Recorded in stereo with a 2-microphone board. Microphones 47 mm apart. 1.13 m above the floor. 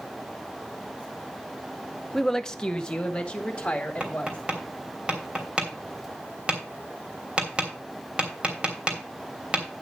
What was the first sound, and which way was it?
A woman speaking, 5° left (ahead or behind).